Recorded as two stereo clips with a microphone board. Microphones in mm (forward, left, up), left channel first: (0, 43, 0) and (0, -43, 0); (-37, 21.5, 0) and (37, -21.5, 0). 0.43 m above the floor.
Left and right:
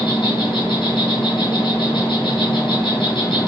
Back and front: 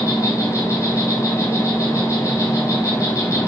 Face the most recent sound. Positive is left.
turn(degrees=100)